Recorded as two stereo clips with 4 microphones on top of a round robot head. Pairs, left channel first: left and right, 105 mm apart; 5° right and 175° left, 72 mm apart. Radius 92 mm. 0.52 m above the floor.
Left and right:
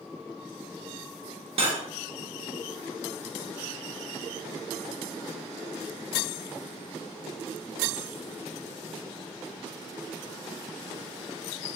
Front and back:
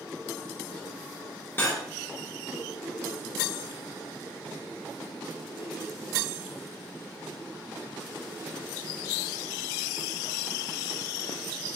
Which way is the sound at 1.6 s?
65° right.